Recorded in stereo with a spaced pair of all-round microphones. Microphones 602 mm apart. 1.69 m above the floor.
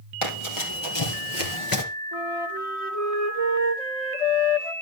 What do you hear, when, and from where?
0.2 s running footsteps: 50° left (ahead or behind), 3.5 m; by 1.9 s 35° left (ahead or behind), 1.9 m
2.1 s a flute: 70° left (ahead or behind), 2.5 m